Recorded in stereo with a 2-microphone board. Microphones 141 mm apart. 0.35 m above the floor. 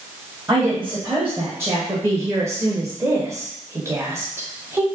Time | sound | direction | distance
0.5 | a woman speaking | 15° right (ahead or behind) | 1.5 m